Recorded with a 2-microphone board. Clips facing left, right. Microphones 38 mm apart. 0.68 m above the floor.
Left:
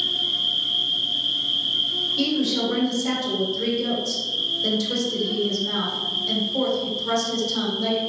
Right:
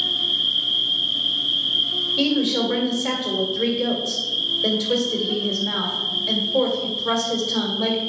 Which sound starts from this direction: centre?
An insect, at 0.0 s.